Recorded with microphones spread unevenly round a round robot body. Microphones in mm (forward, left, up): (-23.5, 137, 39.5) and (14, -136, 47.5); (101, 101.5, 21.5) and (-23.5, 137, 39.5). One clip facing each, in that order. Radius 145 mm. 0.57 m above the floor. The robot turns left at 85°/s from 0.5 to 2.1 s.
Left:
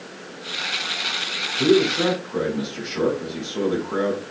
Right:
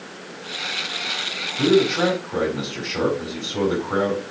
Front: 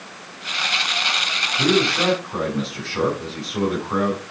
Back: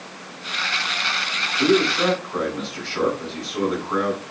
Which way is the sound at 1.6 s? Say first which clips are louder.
Even, back 1 dB; 45° right.